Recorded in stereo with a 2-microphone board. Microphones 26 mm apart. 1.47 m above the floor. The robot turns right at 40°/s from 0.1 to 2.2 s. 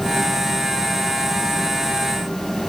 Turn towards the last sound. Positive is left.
No sound to turn to.